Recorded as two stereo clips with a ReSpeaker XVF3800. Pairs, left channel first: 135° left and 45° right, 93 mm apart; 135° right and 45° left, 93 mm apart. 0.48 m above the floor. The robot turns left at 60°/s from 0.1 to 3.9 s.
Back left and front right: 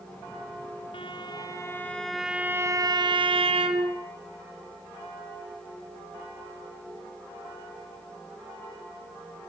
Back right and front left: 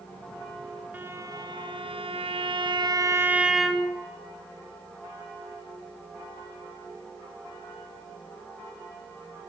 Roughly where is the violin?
Behind left.